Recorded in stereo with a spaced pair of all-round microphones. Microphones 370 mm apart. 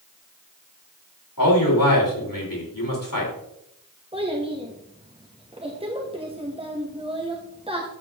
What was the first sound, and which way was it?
A man speaking, 60° left (ahead or behind).